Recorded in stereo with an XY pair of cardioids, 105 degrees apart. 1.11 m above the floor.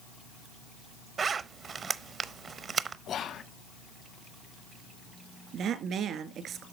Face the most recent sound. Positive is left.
turn(degrees=-65)